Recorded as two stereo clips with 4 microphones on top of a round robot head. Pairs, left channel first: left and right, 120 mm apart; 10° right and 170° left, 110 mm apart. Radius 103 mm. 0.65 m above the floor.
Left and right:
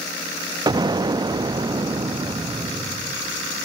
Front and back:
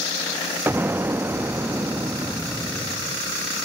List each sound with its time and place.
0.7 s an explosion: 125° right, 0.6 m